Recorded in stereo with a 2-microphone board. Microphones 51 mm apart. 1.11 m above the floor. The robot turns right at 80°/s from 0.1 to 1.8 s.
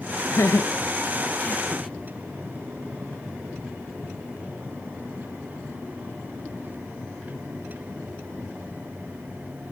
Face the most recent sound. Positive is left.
turn(degrees=0)  # may be behind; listen again after turning